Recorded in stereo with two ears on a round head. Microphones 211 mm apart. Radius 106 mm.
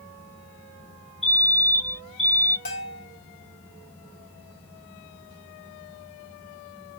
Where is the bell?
40° left (ahead or behind), 1.3 m.